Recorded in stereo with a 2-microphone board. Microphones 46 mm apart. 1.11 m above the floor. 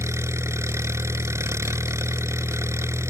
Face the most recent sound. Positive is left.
turn(degrees=-75)  # may be behind; listen again after turning